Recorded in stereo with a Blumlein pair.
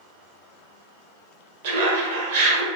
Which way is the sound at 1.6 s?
55° right.